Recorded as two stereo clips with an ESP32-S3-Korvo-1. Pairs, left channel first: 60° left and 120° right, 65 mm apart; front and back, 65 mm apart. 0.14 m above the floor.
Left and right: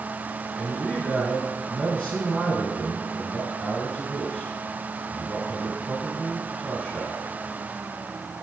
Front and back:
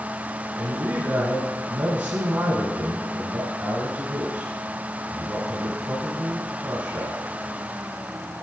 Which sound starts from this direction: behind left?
A man speaking, at 0.6 s.